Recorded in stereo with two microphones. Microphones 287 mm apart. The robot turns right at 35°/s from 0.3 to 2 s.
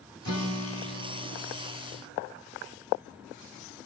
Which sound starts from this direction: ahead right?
A guitar, at 0.2 s.